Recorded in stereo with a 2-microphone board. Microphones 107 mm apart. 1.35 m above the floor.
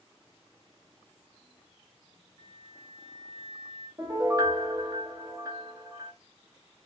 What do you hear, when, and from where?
2.4 s a flute: 45° left (ahead or behind), 1.1 m
4.0 s a piano: 30° right (ahead or behind), 1.0 m